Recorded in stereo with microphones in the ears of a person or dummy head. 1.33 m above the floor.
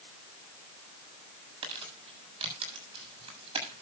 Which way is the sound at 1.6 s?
40° right (ahead or behind).